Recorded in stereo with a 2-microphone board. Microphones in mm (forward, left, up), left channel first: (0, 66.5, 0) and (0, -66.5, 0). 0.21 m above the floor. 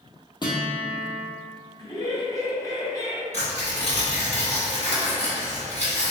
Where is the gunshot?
I don't hear a gunshot.